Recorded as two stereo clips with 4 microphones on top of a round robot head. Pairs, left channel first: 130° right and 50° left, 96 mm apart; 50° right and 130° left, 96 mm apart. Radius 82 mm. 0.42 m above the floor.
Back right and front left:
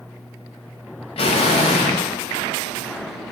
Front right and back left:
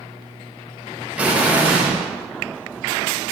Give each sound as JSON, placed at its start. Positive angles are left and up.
{"t": 1.2, "sound": "an explosion", "azimuth_deg": -155, "distance_m": 0.5}